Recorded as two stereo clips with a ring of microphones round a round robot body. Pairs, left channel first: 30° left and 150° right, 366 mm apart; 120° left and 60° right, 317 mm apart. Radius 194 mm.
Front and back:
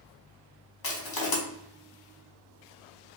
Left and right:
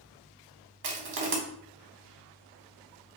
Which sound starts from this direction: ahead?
Crushing, at 0.8 s.